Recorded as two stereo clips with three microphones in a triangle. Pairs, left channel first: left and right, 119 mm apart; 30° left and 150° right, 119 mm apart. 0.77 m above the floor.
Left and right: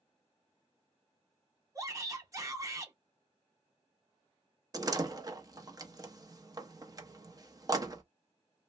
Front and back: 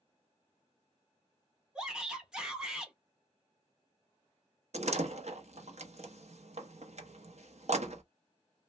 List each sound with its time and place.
1.8 s a shout: 75° right, 0.8 m
4.7 s a door slam: 145° right, 0.6 m